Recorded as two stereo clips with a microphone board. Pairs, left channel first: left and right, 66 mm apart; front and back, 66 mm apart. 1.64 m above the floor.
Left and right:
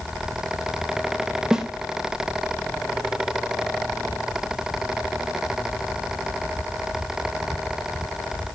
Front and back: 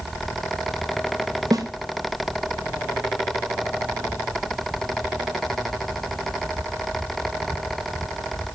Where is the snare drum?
170° right, 1.4 m.